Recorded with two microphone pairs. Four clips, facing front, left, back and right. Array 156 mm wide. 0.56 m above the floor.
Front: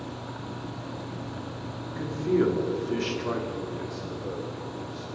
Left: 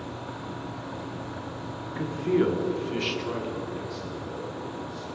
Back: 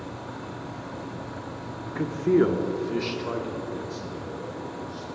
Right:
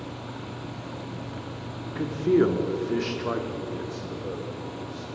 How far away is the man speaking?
About 1.6 m.